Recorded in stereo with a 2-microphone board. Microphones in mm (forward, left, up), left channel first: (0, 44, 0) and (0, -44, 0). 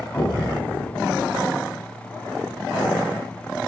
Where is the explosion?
25° left (ahead or behind), 6 m.